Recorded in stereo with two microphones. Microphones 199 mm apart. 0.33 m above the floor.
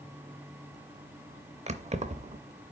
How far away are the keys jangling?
About 0.6 m.